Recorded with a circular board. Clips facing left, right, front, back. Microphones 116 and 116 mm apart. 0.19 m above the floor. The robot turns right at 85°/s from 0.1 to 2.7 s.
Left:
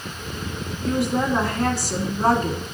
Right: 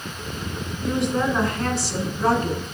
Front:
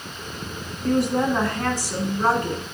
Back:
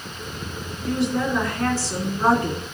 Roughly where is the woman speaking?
Ahead.